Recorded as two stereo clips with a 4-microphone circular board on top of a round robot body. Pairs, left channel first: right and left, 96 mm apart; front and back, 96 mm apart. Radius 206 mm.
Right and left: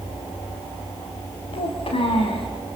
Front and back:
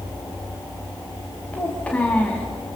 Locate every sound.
1.5 s a child speaking: 75° right, 3 m